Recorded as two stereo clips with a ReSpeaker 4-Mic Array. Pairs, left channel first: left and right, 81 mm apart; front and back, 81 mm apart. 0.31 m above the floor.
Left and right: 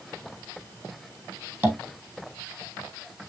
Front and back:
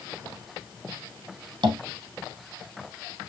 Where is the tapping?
155° right, 3 m.